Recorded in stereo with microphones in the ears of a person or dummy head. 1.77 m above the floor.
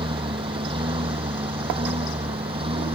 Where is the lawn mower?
25° right (ahead or behind).